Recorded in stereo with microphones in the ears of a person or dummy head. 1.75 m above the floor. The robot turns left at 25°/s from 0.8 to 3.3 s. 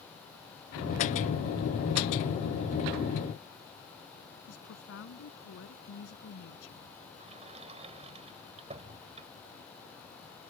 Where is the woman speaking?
75° left (ahead or behind).